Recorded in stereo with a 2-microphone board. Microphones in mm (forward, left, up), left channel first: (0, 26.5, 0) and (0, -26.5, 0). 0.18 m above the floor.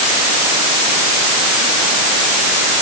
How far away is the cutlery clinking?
I don't hear cutlery clinking.